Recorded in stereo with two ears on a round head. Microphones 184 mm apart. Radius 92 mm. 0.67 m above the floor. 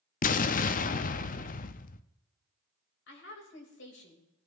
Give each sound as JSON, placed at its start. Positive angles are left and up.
{"t": 0.2, "sound": "an explosion", "side_deg": 40, "distance_m": 0.6}
{"t": 3.1, "sound": "a woman speaking", "side_deg": 60, "distance_m": 3.0}